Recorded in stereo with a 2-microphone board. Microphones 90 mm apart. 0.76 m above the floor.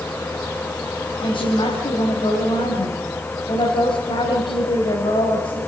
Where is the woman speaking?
75° left (ahead or behind), 4 m.